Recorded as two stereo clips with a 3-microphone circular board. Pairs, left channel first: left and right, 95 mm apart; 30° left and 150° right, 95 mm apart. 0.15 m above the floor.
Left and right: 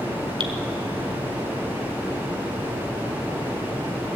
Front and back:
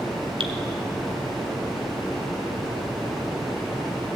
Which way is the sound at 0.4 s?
125° right.